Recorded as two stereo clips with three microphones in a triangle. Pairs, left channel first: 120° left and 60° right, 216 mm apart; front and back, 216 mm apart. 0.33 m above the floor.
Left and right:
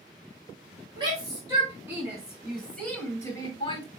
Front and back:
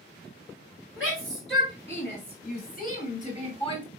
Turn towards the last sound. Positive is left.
turn(degrees=60)